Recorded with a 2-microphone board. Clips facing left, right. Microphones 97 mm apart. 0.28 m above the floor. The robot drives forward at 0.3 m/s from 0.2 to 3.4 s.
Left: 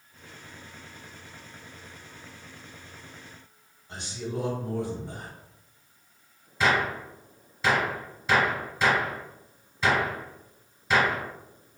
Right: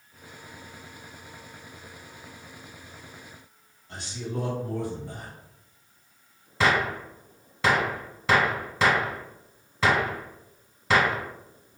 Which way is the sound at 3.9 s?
20° left (ahead or behind).